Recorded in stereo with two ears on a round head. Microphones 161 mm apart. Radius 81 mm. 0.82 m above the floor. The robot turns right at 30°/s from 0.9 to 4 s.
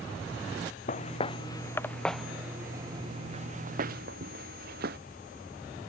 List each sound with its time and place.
0.9 s footsteps: 45° left (ahead or behind); by 5.0 s 60° right (ahead or behind)